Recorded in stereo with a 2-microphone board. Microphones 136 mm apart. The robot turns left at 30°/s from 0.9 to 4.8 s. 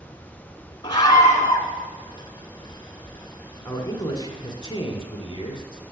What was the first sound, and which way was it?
A scream, 30° left (ahead or behind).